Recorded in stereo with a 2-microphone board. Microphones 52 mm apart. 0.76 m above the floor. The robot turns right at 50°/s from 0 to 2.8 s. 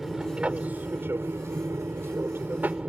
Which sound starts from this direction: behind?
An aircraft, at 0.0 s.